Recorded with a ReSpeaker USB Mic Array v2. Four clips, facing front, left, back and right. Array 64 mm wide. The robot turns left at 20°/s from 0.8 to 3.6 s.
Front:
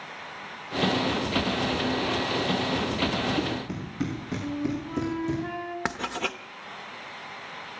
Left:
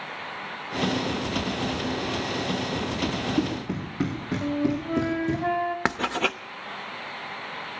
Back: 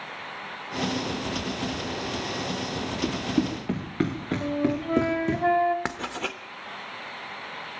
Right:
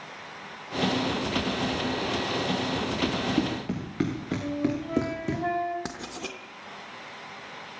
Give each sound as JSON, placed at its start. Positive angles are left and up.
{"t": 3.0, "sound": "running footsteps", "azimuth_deg": -155, "distance_m": 5.0}
{"t": 4.4, "sound": "a flute", "azimuth_deg": 170, "distance_m": 1.4}
{"t": 5.8, "sound": "writing", "azimuth_deg": 85, "distance_m": 0.7}